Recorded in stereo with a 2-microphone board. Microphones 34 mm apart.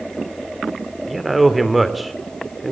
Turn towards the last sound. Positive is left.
turn(degrees=0)  # may be behind; listen again after turning